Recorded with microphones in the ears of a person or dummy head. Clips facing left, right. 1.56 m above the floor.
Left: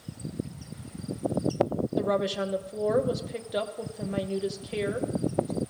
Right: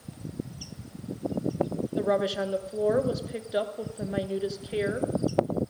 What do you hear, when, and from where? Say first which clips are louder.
2.0 s a woman speaking: right 2 dB; 5° right (ahead or behind), 0.7 m